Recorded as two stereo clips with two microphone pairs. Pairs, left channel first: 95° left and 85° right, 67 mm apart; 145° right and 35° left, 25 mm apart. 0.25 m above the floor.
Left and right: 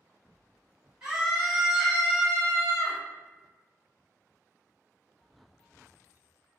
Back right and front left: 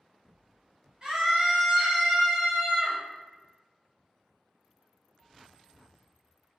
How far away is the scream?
About 1.7 m.